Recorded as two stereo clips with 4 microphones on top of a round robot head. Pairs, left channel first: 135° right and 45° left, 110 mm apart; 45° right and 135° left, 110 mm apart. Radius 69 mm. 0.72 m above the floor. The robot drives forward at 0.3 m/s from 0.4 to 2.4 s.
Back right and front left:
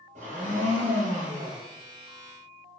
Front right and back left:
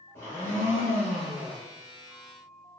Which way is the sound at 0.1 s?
30° left.